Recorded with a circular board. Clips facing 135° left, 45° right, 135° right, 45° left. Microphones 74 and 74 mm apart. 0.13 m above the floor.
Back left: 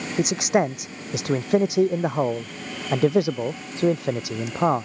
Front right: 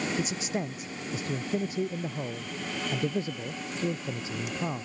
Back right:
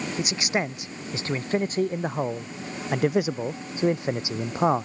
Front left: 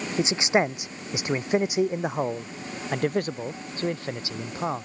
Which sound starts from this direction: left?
A man speaking, at 0.2 s.